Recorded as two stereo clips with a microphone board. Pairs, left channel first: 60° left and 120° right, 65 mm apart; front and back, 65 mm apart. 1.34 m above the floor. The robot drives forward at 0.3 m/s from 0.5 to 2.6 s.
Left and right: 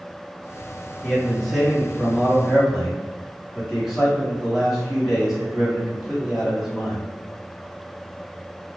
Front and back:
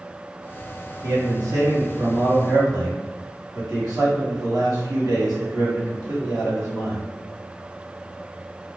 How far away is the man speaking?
About 0.9 m.